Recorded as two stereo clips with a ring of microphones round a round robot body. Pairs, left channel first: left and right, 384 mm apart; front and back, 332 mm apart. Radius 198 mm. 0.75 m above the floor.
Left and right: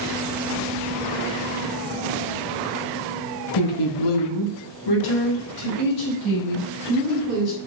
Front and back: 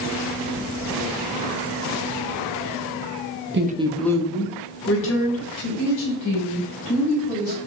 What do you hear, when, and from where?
3.5 s a woman speaking: 125° left, 0.8 m; by 7.6 s 35° left, 3.5 m